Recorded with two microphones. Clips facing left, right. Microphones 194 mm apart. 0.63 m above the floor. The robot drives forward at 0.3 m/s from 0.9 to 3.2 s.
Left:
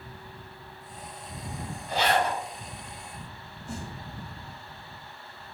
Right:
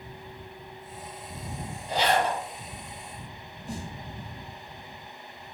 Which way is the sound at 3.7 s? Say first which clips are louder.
Right 1 dB; 40° right (ahead or behind).